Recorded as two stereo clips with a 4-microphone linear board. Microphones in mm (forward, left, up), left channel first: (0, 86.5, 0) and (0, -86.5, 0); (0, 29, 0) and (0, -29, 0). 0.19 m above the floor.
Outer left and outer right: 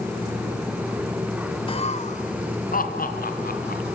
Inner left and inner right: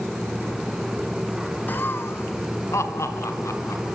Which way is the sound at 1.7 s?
30° left (ahead or behind).